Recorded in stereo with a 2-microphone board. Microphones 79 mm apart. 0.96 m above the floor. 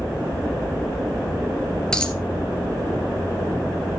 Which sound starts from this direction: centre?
A dropped coin, at 1.9 s.